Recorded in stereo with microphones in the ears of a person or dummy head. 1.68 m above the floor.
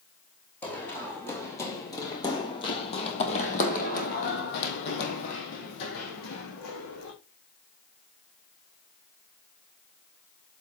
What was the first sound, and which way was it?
Running footsteps, 5° left (ahead or behind).